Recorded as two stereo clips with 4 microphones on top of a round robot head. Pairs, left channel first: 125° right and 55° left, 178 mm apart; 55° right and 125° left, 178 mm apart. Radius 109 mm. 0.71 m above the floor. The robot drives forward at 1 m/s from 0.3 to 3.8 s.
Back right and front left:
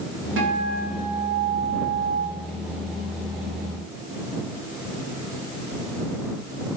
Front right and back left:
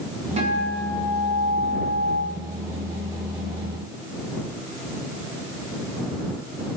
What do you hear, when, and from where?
0.4 s a guitar: 65° left, 4.5 m; by 2.2 s 90° left, 4 m